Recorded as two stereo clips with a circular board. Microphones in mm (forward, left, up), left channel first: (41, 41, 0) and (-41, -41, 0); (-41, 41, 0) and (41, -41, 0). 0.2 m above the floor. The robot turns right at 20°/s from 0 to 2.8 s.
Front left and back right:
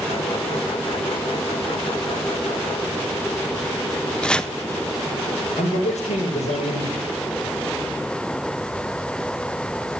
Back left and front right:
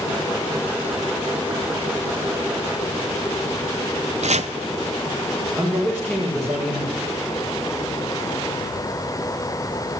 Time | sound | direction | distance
4.2 | chopping | 40° right | 0.5 m
5.6 | a man speaking | 50° left | 5.5 m